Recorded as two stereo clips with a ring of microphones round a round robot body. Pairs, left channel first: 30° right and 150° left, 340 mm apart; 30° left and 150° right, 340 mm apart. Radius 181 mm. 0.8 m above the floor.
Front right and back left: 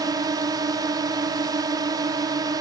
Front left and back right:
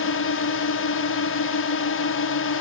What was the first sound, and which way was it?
A drone, 75° left.